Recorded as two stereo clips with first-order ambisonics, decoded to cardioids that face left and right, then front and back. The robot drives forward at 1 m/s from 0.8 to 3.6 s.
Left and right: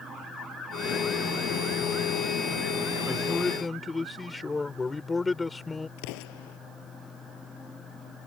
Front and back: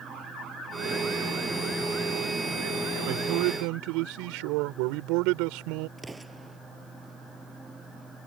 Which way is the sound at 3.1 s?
170° left.